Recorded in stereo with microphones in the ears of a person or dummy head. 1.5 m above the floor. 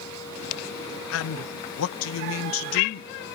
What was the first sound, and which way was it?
A man speaking, 75° left (ahead or behind).